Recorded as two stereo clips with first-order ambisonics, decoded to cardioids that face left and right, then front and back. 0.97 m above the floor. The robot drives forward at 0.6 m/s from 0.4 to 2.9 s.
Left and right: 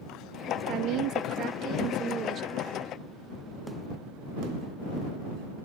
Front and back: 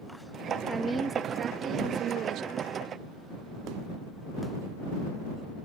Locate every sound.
0.7 s a woman speaking: 95° right; by 2.7 s 150° right